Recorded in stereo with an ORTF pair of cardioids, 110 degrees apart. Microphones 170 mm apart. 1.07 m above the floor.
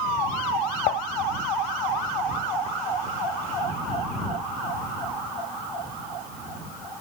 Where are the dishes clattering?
60° left.